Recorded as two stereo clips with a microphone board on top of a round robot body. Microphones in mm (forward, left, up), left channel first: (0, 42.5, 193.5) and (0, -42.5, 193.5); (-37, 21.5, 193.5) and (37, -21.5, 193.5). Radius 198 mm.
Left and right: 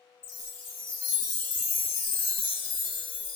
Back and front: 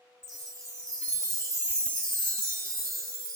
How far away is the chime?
About 1.1 m.